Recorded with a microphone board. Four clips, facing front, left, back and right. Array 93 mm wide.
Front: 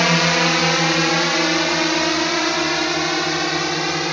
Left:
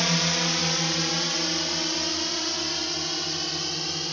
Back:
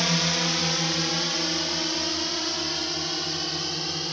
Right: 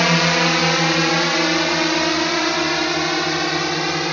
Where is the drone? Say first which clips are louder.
Right 10 dB, front 10 dB; 50° right; by 4.1 s 55° right.